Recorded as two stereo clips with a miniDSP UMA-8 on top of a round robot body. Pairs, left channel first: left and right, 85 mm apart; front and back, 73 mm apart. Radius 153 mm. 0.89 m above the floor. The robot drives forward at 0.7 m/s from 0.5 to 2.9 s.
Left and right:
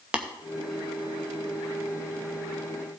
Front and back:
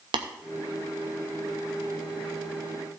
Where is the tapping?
170° right, 0.7 m.